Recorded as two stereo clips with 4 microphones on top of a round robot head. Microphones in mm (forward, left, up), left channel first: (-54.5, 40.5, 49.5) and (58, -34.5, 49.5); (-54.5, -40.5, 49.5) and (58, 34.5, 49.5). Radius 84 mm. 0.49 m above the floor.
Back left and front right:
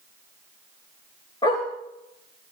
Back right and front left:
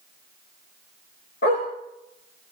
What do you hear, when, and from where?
1.4 s a dog barking: 155° right, 9.5 m